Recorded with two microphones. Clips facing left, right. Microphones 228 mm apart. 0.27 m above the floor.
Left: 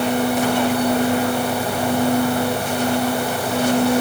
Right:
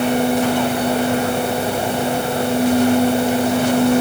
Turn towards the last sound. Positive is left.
No sound to turn to.